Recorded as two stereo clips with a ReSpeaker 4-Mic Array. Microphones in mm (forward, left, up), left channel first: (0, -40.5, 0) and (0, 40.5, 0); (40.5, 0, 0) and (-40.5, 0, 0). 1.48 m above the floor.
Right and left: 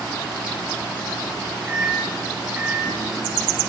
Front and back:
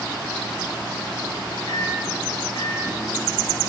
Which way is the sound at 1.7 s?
20° left.